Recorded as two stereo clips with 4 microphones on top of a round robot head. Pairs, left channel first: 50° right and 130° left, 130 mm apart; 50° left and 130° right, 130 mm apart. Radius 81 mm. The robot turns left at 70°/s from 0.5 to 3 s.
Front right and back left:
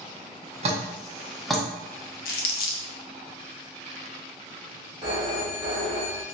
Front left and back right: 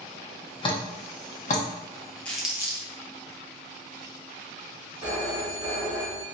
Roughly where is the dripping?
Left.